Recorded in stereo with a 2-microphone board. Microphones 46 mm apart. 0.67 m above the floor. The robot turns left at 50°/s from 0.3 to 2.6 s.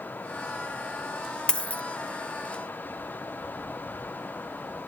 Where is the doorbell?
I don't hear a doorbell.